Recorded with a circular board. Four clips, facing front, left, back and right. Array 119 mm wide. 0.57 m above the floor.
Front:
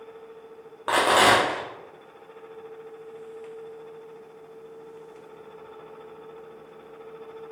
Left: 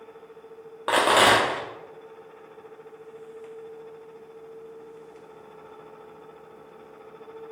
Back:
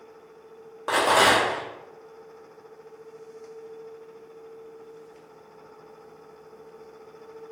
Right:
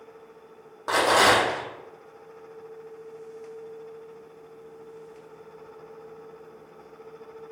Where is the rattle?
70° left, 0.8 m.